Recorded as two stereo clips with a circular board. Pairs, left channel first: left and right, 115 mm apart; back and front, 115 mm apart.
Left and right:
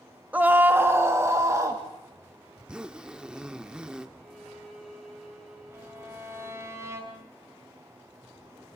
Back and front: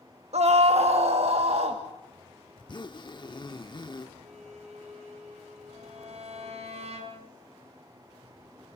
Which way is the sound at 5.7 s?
25° right.